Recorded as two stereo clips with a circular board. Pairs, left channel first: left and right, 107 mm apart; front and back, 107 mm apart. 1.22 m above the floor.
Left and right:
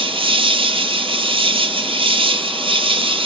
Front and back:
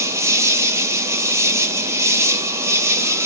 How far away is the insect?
About 0.9 m.